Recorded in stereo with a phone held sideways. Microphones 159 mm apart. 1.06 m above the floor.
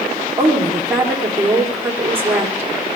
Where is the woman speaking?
15° right (ahead or behind), 3 m.